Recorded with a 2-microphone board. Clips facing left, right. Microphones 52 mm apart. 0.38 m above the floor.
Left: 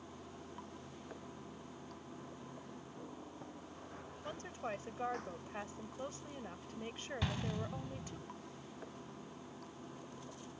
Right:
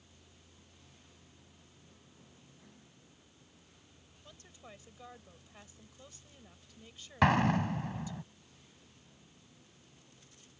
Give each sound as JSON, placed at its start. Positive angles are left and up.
{"t": 0.0, "sound": "running water", "side_deg": 75}
{"t": 4.2, "sound": "a woman speaking", "side_deg": 50}
{"t": 7.2, "sound": "an explosion", "side_deg": -75}